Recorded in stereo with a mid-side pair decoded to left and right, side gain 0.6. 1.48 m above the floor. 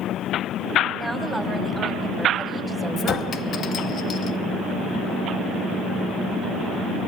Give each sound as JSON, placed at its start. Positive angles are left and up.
{"t": 1.0, "sound": "a woman speaking", "azimuth_deg": -5, "distance_m": 9.0}
{"t": 3.0, "sound": "a clink", "azimuth_deg": 50, "distance_m": 1.0}